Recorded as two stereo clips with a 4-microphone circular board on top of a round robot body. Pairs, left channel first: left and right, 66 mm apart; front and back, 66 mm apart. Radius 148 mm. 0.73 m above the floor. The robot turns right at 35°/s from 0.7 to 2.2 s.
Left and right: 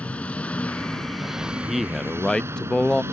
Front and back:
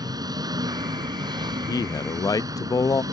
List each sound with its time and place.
0.0 s an engine running: 160° left; by 3.1 s 145° right
1.4 s a man speaking: 15° right; by 3.0 s 10° left